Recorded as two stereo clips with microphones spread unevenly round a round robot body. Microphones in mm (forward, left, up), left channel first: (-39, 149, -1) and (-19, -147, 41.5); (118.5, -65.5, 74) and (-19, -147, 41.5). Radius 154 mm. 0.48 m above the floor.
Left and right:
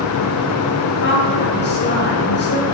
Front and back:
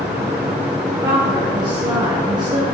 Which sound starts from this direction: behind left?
A woman speaking, at 1.0 s.